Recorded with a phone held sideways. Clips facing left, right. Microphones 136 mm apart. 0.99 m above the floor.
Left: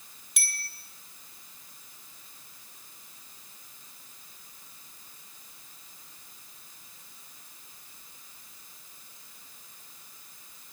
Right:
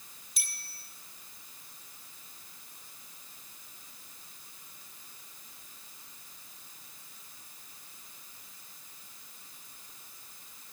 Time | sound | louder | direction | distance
0.4 | a bicycle bell | left 9 dB | 90° left | 3 m